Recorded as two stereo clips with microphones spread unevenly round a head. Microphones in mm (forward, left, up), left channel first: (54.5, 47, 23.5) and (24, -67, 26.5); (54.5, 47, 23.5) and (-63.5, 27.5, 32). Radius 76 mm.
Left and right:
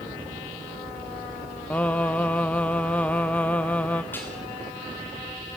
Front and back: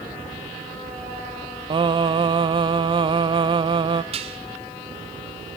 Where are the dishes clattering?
150° left, 2 m.